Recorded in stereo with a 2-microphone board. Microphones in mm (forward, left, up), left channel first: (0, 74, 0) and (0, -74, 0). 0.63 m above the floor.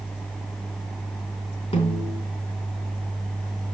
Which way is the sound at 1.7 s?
40° left (ahead or behind).